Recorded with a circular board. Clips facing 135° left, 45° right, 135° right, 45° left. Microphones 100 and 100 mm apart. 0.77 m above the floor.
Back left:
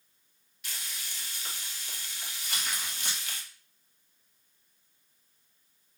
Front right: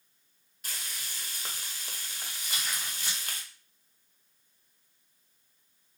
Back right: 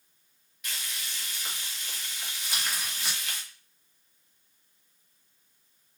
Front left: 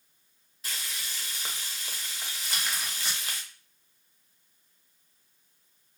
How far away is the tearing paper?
About 0.9 m.